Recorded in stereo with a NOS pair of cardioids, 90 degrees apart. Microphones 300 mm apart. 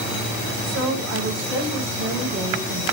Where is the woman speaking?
45° right, 5 m.